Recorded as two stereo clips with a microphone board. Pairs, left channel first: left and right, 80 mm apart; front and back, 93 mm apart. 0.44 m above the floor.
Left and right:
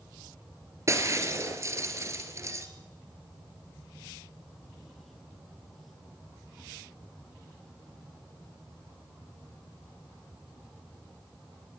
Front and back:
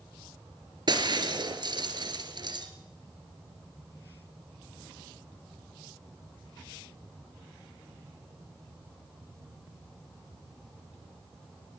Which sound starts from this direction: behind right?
Breaking glass, at 0.9 s.